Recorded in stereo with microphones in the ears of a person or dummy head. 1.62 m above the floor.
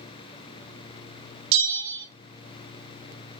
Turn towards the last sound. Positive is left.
turn(degrees=-65)  # may be behind; listen again after turning